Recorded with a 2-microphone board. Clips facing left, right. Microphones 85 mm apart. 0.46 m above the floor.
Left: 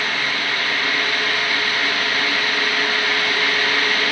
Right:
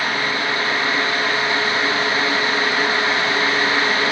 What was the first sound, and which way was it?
Only background noise.